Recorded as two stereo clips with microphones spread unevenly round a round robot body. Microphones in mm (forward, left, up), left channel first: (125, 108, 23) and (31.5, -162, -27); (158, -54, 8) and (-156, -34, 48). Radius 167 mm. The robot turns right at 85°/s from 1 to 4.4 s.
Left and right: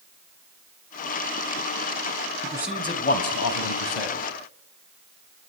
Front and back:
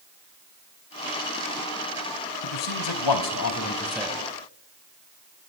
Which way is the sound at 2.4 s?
45° right.